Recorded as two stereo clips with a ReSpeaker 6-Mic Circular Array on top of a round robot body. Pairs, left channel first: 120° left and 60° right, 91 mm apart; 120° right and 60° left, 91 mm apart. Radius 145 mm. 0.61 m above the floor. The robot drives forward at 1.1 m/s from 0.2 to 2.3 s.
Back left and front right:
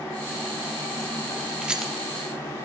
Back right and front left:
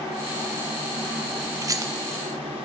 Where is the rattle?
15° left, 0.9 m; by 1.9 s 30° left, 0.6 m.